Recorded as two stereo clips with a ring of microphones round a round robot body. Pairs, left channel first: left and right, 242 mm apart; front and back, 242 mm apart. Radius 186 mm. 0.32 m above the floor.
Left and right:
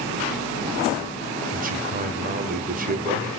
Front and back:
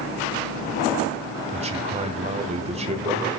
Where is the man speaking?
125° right, 1.6 m.